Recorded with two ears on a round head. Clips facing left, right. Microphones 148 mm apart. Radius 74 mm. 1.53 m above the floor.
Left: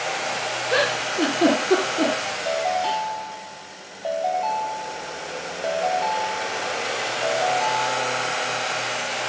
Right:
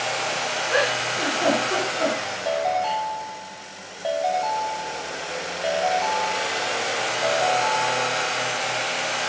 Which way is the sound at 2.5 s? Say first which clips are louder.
Even; 5° right (ahead or behind).